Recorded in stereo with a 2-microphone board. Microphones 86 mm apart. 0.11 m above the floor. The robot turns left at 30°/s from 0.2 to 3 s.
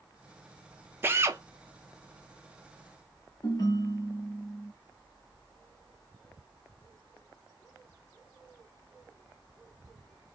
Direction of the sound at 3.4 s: 45° left (ahead or behind).